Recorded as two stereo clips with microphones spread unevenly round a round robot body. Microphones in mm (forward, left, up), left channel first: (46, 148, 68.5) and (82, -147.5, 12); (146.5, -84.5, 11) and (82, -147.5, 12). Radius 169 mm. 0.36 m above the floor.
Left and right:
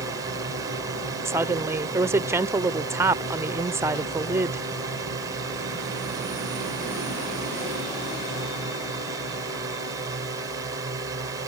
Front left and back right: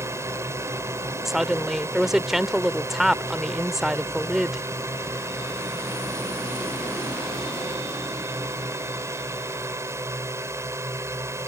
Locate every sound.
0.0 s a drone: 130° right
1.2 s a woman speaking: 55° right